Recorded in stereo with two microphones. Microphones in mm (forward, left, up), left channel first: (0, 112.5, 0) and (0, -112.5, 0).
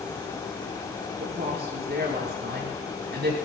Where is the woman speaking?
50° right (ahead or behind), 6 m.